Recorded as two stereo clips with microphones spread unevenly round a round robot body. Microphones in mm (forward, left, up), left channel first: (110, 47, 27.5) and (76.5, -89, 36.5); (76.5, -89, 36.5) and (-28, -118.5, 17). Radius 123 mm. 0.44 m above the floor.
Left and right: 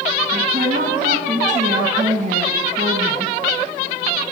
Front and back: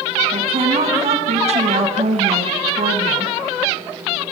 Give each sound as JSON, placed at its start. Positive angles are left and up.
{"t": 0.3, "sound": "a woman speaking", "azimuth_deg": -155, "distance_m": 4.0}